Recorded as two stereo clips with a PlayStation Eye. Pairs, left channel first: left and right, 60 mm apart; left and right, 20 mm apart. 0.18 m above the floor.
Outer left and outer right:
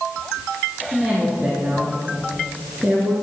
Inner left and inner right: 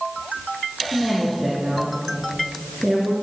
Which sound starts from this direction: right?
A woman speaking, at 0.9 s.